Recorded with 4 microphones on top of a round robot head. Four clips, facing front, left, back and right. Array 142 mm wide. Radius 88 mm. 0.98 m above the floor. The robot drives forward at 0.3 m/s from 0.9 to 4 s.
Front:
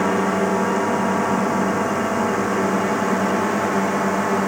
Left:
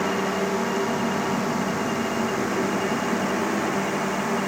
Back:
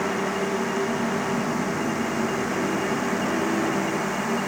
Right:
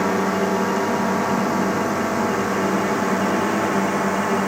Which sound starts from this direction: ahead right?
A drone, at 0.0 s.